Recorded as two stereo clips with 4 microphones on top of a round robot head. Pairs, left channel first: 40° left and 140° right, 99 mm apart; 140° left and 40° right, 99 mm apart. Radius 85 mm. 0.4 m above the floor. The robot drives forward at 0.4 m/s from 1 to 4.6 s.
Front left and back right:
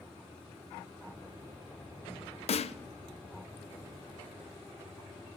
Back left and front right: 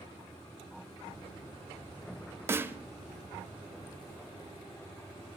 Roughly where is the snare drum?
Ahead left.